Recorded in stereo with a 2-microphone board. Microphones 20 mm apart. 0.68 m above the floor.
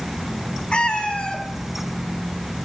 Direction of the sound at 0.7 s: 55° left (ahead or behind).